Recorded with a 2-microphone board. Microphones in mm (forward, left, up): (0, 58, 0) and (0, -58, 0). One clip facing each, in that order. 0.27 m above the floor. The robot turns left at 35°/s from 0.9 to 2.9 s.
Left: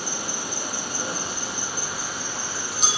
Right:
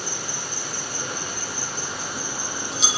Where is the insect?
40° left, 4 m; by 3.0 s 30° right, 4 m.